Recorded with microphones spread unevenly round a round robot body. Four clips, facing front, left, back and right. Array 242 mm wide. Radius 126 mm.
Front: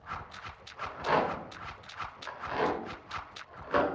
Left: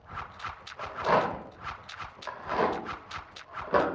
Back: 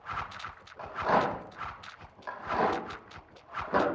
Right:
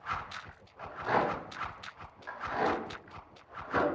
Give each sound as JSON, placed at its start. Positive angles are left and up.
{"t": 0.8, "sound": "a rattle", "azimuth_deg": 90, "distance_m": 2.5}